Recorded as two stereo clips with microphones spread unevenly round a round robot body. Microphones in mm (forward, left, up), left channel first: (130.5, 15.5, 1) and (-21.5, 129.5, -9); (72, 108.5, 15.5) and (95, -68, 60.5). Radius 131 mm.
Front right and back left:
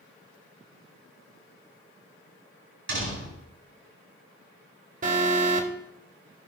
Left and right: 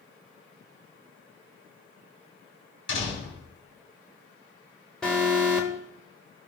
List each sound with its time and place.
2.9 s a door slam: 125° left, 5.5 m
5.0 s an alarm: 165° left, 1.3 m